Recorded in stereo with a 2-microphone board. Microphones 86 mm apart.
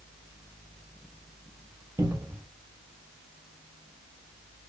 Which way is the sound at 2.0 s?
40° right (ahead or behind).